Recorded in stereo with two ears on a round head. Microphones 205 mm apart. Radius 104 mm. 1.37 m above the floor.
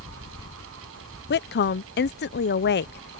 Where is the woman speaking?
45° left (ahead or behind).